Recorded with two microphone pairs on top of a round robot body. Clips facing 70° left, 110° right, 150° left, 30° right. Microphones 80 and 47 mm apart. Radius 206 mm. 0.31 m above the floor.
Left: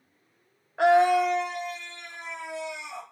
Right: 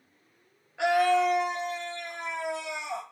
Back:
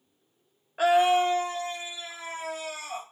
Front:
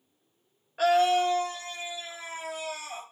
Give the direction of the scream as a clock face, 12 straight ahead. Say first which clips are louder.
Left 4 dB, back 1 dB; 9 o'clock.